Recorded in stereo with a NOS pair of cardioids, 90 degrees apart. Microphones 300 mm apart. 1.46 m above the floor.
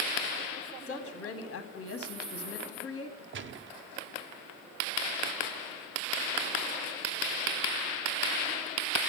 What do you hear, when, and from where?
0.9 s a woman speaking: 45° left, 1.2 m
3.3 s a gunshot: 40° right, 0.6 m